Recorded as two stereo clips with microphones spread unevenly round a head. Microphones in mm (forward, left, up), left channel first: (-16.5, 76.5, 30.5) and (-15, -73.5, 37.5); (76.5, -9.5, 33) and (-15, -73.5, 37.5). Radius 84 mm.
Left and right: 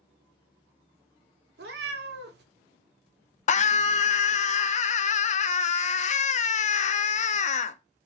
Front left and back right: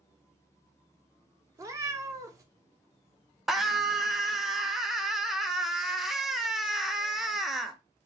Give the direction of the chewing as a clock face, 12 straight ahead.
I don't hear chewing.